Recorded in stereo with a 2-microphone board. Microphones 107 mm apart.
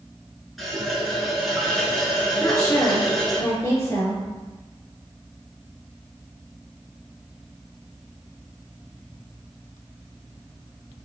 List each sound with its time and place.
0.6 s a running tap: centre (ahead or behind), 0.9 m
2.4 s a woman speaking: 30° left (ahead or behind), 1.4 m